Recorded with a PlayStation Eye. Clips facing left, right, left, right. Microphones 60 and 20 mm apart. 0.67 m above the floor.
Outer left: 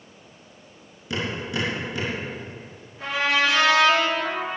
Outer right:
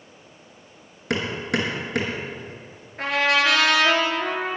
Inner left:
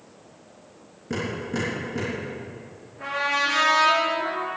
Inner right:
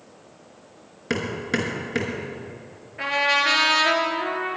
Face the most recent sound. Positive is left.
turn(degrees=-70)  # may be behind; listen again after turning